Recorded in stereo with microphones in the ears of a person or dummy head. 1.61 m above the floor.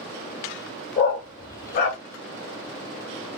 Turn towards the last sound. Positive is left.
turn(degrees=45)  # may be behind; listen again after turning